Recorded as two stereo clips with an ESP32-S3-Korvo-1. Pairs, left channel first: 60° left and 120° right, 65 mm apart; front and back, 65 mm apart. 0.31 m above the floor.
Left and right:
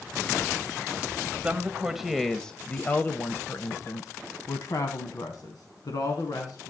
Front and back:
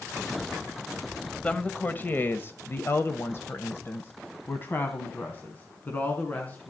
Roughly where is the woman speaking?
Ahead right.